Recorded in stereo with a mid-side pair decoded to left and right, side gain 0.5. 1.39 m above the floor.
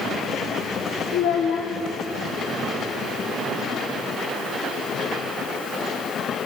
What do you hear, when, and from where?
1.1 s a child speaking: 70° left, 0.7 m